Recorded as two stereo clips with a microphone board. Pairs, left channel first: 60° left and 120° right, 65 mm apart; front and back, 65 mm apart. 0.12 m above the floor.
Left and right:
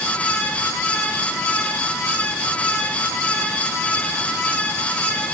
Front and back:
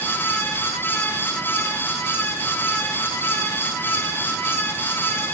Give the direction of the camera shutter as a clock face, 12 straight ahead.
No camera shutter in this recording.